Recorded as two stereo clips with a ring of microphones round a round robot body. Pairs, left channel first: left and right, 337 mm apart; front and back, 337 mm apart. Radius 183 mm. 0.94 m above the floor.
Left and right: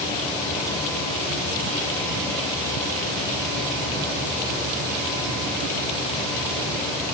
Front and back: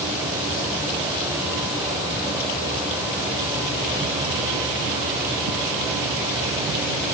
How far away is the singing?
No singing in this recording.